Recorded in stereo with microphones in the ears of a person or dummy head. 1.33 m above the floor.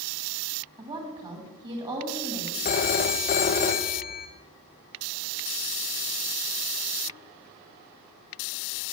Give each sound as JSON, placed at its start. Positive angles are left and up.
{"t": 0.8, "sound": "a woman speaking", "side_deg": -25, "distance_m": 2.5}
{"t": 2.6, "sound": "a phone ringing", "side_deg": 35, "distance_m": 0.6}